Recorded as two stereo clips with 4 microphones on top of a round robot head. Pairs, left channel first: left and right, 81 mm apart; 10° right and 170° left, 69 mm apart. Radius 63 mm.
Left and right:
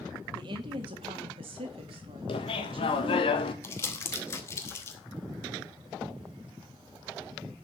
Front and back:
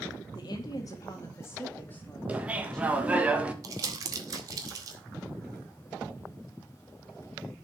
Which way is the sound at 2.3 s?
100° left.